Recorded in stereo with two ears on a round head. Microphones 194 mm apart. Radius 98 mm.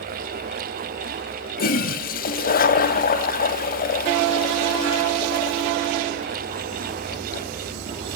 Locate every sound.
1.6 s a toilet flushing: 45° left (ahead or behind), 1.0 m